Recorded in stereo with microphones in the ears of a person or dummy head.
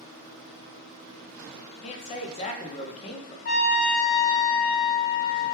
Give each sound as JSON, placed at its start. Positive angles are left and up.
{"t": 1.8, "sound": "a man speaking", "side_deg": 35, "distance_m": 0.6}
{"t": 3.5, "sound": "a trumpet", "side_deg": 45, "distance_m": 0.5}